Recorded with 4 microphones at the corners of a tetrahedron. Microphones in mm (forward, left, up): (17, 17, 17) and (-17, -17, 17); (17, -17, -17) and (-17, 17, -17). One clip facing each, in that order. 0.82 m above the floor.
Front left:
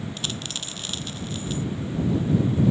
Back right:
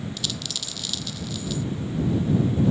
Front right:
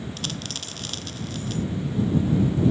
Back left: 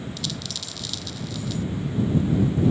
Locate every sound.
0.2 s a dropped coin: 5° right